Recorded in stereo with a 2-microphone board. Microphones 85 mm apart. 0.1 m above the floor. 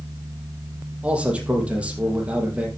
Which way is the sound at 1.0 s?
15° right (ahead or behind).